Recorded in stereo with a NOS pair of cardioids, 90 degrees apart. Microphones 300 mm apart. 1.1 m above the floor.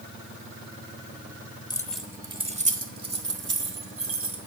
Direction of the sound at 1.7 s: 15° left.